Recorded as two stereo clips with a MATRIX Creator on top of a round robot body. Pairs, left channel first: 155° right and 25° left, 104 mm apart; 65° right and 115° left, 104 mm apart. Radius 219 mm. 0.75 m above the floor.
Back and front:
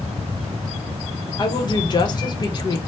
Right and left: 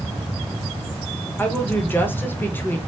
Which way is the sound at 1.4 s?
130° right.